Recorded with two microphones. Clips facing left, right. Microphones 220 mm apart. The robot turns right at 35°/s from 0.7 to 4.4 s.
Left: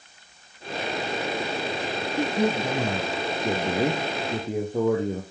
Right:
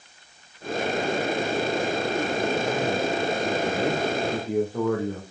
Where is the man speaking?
80° left, 2.5 m; by 5.2 s 160° left, 2.5 m.